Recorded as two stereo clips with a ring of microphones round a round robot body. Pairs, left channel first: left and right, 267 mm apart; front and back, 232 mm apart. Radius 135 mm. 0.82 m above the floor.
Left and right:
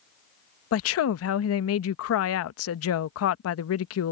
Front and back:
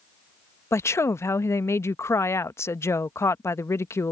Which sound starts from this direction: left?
A woman speaking, at 0.7 s.